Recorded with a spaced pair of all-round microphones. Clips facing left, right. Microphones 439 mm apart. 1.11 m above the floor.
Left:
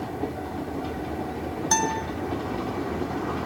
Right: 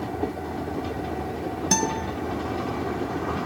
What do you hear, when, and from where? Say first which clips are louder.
1.7 s a guitar: right 3 dB; 45° right (ahead or behind), 0.9 m